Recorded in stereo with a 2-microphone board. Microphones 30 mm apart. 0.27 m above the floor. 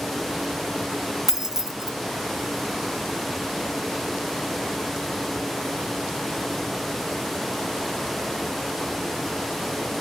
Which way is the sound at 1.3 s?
10° right (ahead or behind).